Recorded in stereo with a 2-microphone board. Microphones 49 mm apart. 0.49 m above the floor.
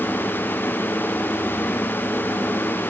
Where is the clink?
I don't hear a clink.